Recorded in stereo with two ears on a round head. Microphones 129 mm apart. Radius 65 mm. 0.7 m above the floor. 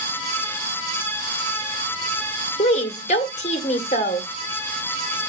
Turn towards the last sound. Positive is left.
turn(degrees=50)  # may be behind; listen again after turning